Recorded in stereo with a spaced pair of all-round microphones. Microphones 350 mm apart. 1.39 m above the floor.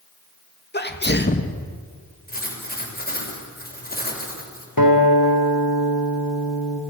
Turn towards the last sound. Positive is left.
turn(degrees=75)  # may be behind; listen again after turning